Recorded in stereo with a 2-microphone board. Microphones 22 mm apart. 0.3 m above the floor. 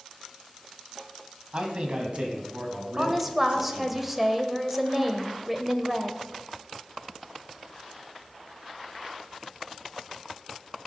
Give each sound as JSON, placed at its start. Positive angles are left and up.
{"t": 1.5, "sound": "a man speaking", "side_deg": -45, "distance_m": 1.8}
{"t": 3.0, "sound": "a woman speaking", "side_deg": -15, "distance_m": 1.1}